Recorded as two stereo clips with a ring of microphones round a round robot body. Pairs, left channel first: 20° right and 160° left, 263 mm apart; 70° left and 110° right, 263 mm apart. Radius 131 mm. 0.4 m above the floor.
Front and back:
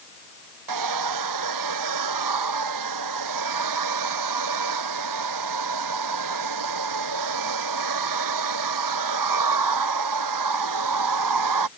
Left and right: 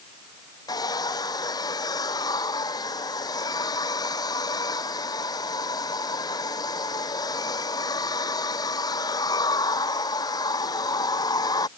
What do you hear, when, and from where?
0.7 s a hair dryer: 145° left